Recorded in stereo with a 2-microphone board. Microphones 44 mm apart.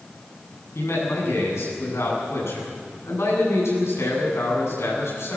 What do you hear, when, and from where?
0.8 s a man speaking: 75° left (ahead or behind), 8.5 m